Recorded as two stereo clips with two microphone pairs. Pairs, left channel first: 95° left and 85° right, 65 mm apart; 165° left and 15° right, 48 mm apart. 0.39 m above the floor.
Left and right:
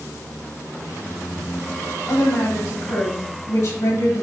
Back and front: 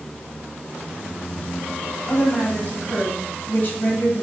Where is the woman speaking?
130° left, 2.5 m.